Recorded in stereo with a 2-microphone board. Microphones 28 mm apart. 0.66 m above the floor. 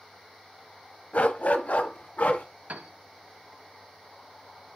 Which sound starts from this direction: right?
A piano, at 2.7 s.